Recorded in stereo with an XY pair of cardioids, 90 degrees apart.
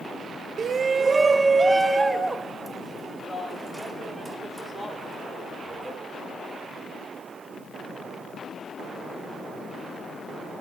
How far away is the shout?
About 0.7 m.